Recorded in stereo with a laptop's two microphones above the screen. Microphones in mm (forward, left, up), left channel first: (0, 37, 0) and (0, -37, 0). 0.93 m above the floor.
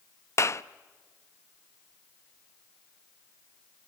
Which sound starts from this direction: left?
A clap, at 0.4 s.